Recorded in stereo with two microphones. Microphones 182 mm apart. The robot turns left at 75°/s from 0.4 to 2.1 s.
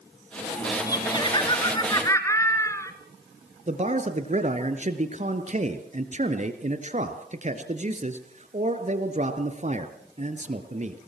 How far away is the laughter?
About 1.8 m.